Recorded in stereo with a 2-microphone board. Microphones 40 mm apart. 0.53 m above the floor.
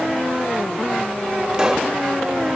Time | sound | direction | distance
1.5 | a pop | 25° right (ahead or behind) | 1.1 m